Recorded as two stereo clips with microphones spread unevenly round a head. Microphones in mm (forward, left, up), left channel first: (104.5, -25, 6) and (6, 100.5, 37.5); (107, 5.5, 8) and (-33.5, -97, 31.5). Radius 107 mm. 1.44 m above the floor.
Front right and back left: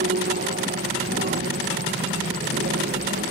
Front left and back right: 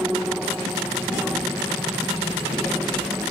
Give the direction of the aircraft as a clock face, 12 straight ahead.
8 o'clock.